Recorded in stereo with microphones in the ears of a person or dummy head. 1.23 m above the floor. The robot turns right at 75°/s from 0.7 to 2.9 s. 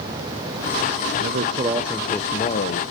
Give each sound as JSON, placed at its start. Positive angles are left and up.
{"t": 1.2, "sound": "a man speaking", "azimuth_deg": -60, "distance_m": 0.8}